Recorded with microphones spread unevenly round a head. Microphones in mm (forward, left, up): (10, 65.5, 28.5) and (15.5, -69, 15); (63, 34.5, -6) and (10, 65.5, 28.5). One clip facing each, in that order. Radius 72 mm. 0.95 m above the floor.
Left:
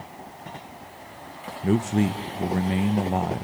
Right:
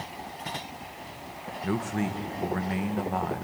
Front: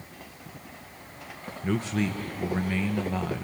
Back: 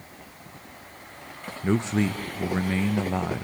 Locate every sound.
1.6 s a man speaking: 60° left, 0.7 m